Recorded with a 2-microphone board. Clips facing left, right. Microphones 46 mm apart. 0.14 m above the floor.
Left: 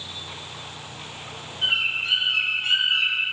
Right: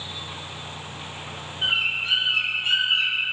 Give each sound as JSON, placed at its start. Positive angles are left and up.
{"t": 1.6, "sound": "a bird", "side_deg": -20, "distance_m": 2.0}